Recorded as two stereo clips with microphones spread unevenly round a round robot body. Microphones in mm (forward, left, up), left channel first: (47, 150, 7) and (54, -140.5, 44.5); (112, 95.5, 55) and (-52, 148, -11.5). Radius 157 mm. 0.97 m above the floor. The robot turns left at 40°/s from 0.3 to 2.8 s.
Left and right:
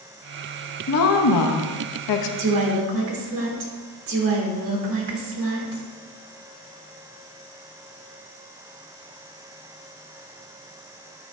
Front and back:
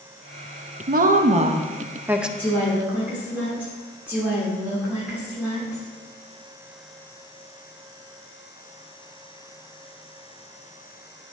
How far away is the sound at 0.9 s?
About 0.7 m.